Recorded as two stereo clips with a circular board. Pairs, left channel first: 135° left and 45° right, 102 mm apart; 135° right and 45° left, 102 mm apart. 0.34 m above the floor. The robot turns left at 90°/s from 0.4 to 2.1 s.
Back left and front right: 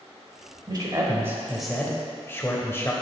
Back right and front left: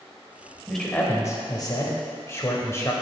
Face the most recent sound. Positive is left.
turn(degrees=-175)